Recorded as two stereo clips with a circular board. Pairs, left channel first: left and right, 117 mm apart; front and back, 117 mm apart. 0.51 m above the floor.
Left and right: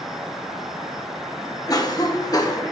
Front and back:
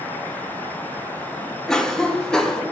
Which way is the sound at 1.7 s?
80° left.